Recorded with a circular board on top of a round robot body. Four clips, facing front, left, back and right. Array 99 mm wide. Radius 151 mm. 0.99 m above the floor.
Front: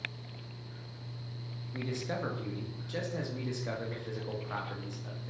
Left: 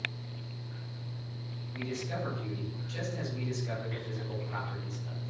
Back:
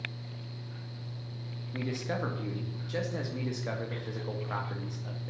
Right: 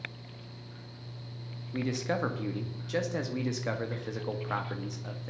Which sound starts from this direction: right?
A man speaking, at 1.7 s.